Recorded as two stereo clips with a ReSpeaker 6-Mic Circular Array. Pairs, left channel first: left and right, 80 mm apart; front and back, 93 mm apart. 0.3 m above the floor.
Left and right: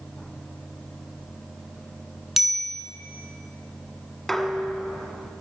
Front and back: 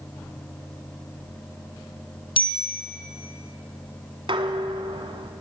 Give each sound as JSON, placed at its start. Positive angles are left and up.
{"t": 2.4, "sound": "a bicycle bell", "azimuth_deg": -5, "distance_m": 2.5}
{"t": 4.3, "sound": "dishes clattering", "azimuth_deg": 175, "distance_m": 1.5}